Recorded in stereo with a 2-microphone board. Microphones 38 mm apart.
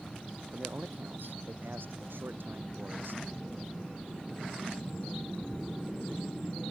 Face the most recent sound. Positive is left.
turn(degrees=-70)  # may be behind; listen again after turning